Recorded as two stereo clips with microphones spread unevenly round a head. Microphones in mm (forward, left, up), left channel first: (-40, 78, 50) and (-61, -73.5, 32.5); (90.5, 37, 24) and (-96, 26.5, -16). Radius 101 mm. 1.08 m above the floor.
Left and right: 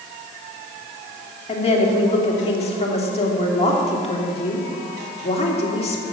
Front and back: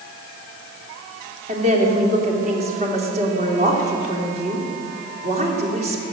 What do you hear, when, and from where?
1.5 s a woman speaking: 130° left, 3 m